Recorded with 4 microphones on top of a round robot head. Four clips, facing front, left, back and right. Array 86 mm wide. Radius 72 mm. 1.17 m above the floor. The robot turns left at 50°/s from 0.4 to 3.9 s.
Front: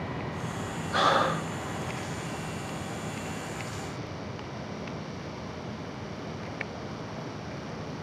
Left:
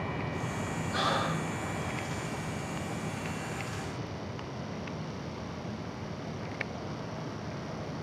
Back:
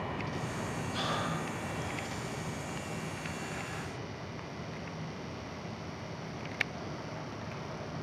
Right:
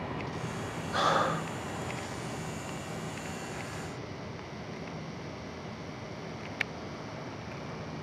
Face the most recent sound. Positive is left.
turn(degrees=-160)